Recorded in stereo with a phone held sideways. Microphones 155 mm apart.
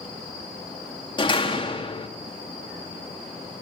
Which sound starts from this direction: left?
A door slam, at 1.2 s.